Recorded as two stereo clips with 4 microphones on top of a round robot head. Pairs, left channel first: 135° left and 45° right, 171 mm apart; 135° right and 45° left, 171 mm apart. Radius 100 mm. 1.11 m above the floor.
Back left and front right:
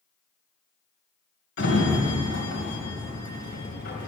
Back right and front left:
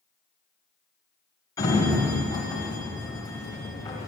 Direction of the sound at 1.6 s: 155° left.